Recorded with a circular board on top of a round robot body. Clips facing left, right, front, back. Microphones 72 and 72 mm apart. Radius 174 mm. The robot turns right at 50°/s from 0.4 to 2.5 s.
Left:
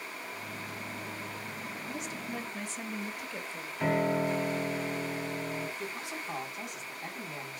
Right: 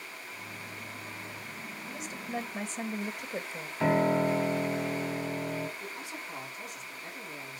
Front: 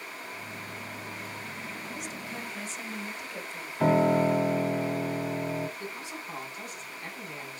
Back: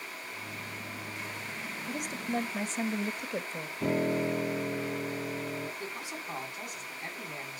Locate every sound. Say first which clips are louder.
1.9 s a woman speaking: right 2 dB, back 4 dB; 175° left, 1.7 m; by 3.7 s 155° right, 1.7 m
3.8 s a piano: right 3 dB, front 7 dB; 10° right, 1.6 m
5.8 s a man speaking: left 2 dB, front 1 dB; 105° left, 8 m